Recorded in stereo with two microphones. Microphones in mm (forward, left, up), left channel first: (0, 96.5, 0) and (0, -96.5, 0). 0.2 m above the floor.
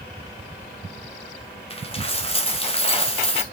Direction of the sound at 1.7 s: 30° left (ahead or behind).